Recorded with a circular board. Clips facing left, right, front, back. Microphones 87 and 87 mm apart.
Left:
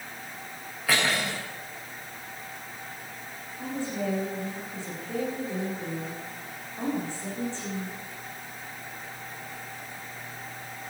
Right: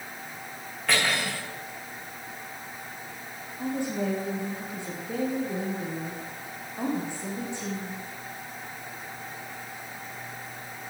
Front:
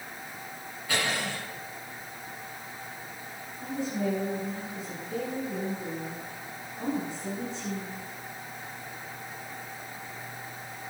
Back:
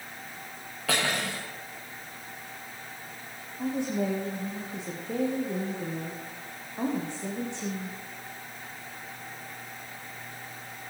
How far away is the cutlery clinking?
About 6.5 m.